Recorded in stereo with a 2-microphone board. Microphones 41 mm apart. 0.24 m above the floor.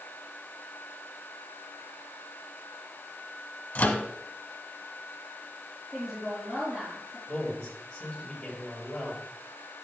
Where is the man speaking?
20° left (ahead or behind), 5 m.